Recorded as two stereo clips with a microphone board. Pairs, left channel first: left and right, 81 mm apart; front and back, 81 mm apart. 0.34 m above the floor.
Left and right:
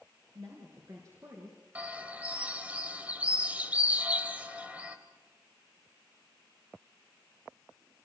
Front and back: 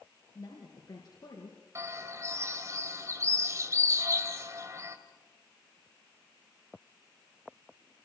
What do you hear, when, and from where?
0.3 s a woman speaking: 50° right, 4.5 m; by 1.6 s 35° right, 4 m
1.8 s a bird: 155° right, 1.9 m